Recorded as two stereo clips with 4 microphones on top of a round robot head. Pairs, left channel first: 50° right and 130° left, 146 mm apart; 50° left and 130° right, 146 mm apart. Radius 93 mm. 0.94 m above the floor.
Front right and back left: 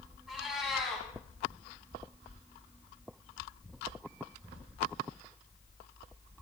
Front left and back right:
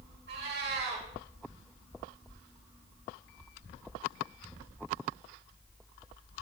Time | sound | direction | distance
0.3 | a cat meowing | 145° right | 3.5 m